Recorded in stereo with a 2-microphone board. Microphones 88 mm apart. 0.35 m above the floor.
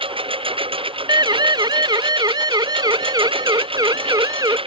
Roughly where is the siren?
Right.